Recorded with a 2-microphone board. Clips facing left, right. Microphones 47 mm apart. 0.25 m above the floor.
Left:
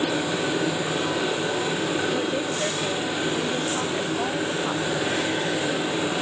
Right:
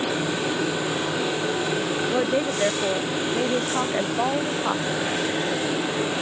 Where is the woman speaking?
25° right (ahead or behind).